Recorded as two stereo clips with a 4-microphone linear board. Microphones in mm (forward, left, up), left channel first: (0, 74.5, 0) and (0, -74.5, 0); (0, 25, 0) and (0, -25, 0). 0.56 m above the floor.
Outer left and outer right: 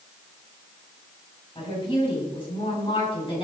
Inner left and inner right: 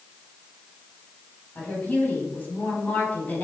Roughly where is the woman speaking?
Left.